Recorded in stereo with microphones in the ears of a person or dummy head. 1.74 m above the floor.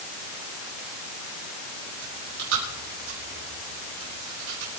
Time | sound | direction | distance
2.0 | chewing | 75° right (ahead or behind) | 6.5 m